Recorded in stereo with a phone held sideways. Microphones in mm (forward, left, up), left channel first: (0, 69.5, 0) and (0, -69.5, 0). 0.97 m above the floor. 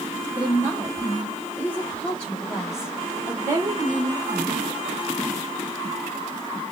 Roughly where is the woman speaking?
Left.